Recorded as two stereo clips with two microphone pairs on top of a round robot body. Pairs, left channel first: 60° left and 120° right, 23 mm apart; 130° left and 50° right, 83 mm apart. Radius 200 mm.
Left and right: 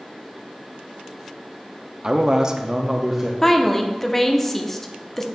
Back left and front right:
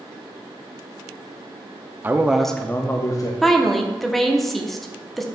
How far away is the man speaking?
About 0.9 m.